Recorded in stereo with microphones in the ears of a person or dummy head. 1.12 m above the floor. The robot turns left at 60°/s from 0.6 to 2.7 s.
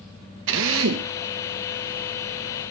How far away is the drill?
About 1.5 m.